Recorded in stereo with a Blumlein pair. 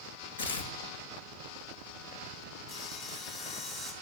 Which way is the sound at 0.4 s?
60° left.